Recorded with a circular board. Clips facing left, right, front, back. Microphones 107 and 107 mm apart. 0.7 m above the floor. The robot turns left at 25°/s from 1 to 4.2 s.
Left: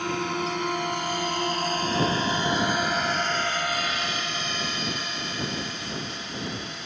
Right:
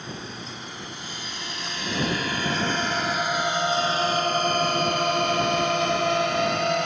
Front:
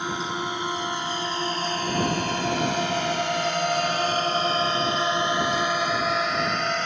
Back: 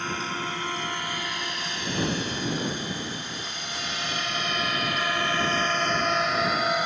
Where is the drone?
75° left; by 6.8 s 100° right.